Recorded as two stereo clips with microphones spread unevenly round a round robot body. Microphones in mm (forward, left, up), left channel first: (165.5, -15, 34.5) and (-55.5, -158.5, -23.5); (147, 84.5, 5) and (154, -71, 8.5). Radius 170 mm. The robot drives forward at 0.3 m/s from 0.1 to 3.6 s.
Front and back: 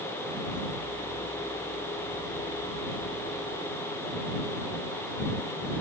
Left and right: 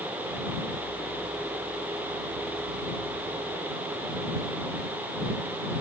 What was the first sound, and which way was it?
Only background noise.